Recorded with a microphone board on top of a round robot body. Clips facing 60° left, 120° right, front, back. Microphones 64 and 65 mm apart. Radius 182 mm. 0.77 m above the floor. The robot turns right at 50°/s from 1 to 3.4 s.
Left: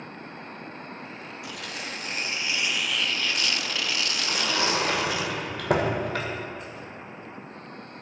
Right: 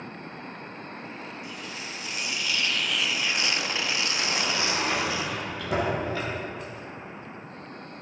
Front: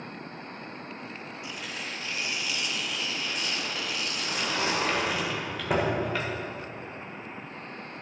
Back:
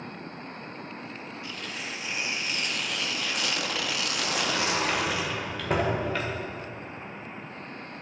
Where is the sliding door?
90° left, 1.6 m.